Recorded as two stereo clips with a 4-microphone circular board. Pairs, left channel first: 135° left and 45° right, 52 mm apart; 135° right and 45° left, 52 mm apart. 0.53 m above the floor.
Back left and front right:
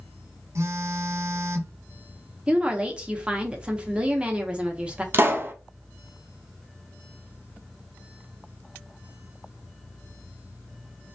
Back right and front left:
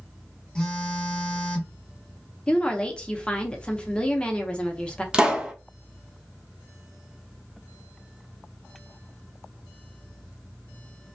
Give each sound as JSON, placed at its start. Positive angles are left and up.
{"t": 0.6, "sound": "a phone buzzing", "azimuth_deg": -60, "distance_m": 0.8}
{"t": 2.5, "sound": "a woman speaking", "azimuth_deg": -90, "distance_m": 0.6}
{"t": 5.1, "sound": "a pop", "azimuth_deg": -25, "distance_m": 0.5}